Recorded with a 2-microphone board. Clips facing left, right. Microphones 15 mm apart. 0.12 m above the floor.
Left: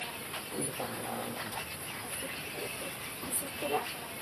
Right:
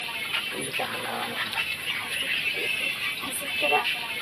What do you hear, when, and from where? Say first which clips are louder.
0.0 s a vehicle: right 11 dB; 50° right (ahead or behind)